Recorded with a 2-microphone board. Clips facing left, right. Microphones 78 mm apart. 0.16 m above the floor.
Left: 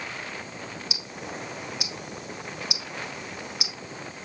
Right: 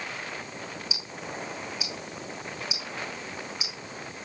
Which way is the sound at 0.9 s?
70° left (ahead or behind).